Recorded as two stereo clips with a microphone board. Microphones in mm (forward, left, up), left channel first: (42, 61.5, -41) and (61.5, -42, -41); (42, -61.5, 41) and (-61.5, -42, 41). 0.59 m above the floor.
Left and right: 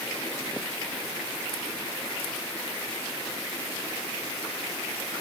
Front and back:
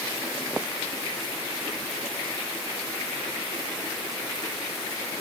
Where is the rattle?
No rattle in this recording.